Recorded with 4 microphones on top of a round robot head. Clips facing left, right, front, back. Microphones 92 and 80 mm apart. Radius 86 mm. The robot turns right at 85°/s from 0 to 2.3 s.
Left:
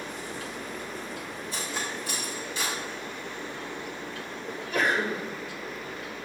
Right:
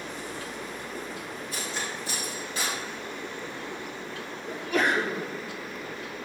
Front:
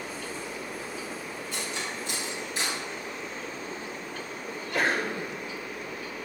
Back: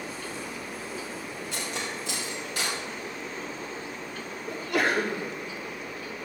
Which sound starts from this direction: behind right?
A sneeze, at 4.5 s.